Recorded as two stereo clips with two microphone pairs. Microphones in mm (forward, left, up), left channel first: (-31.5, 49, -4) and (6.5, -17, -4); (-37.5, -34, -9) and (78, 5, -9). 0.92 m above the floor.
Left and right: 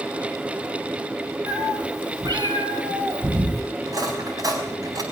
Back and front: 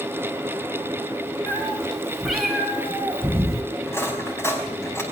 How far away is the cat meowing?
About 4 m.